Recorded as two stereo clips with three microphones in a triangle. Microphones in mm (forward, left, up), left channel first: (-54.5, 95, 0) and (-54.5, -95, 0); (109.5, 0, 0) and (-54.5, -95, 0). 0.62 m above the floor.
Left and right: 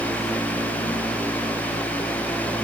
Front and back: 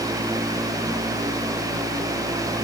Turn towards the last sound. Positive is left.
No sound to turn to.